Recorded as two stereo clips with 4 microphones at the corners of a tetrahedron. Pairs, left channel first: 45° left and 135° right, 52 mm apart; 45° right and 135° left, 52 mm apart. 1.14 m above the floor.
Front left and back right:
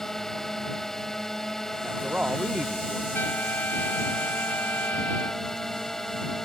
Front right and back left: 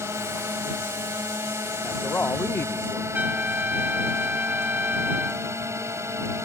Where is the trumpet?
85° left.